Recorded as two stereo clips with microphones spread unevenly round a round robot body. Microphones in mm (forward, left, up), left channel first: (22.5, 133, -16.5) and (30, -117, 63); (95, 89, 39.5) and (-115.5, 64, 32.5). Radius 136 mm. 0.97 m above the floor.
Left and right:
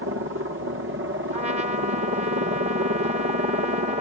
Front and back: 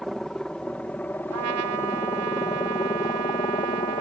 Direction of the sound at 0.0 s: 80° right.